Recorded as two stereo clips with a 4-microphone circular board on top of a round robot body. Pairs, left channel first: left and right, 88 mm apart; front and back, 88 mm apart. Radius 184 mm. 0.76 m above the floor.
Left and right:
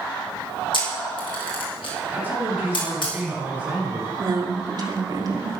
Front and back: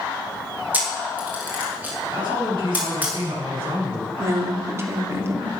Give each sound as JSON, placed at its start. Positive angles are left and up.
{"t": 0.7, "sound": "a camera shutter", "azimuth_deg": 110, "distance_m": 4.0}
{"t": 2.1, "sound": "a man speaking", "azimuth_deg": -160, "distance_m": 7.5}
{"t": 4.2, "sound": "a woman speaking", "azimuth_deg": -125, "distance_m": 3.0}